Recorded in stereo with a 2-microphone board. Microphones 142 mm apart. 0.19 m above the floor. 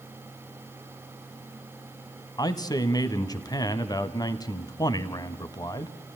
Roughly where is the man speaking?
Left.